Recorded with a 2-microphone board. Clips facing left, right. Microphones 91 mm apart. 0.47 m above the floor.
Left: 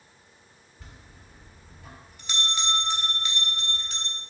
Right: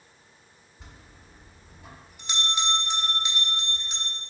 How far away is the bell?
About 1.3 m.